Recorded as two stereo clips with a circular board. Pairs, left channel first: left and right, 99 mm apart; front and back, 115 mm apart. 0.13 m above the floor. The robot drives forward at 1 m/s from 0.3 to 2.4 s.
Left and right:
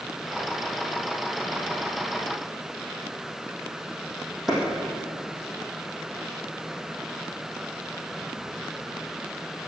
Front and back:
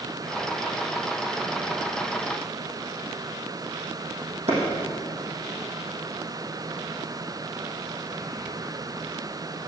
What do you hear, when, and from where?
4.5 s a clap: straight behind, 5 m